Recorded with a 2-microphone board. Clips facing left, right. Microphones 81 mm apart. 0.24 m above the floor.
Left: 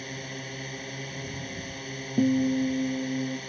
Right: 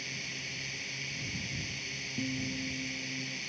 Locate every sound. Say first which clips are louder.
0.0 s a drone: left 6 dB; 45° left (ahead or behind)
2.2 s a guitar: left 14 dB; 55° left (ahead or behind)